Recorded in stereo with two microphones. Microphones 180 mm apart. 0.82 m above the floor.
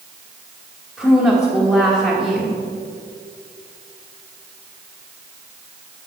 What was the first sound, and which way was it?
A woman speaking, 5° left (ahead or behind).